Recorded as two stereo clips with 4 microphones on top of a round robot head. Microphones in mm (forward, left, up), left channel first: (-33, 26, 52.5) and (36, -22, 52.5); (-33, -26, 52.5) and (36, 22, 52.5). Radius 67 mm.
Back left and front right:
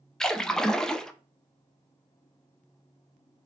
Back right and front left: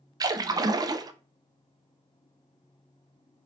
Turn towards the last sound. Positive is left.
turn(degrees=65)